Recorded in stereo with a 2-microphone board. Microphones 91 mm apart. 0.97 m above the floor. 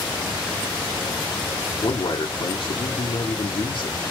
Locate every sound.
1.8 s a man speaking: 65° left (ahead or behind), 1.7 m